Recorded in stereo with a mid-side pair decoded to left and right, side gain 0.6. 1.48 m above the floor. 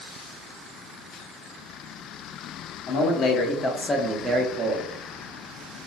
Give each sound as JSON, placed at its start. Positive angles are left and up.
{"t": 2.9, "sound": "a man speaking", "azimuth_deg": 65, "distance_m": 1.0}